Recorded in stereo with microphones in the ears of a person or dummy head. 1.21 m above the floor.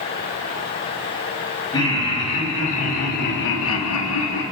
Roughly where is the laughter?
Left.